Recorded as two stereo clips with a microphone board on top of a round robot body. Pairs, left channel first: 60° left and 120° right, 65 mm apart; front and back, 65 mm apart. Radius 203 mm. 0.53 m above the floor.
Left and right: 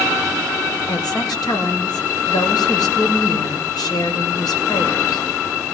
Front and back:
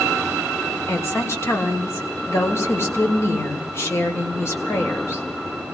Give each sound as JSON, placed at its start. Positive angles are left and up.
{"t": 0.9, "sound": "a woman speaking", "azimuth_deg": 50, "distance_m": 3.0}